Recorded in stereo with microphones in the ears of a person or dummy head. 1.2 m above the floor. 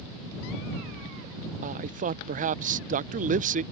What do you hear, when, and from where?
1.6 s a man speaking: 35° right (ahead or behind)